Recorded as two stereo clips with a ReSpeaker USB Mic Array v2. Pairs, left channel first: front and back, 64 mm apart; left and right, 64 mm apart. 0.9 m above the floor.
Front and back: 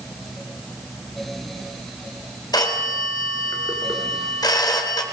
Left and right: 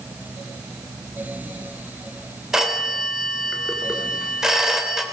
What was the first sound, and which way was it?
A phone ringing, 10° right.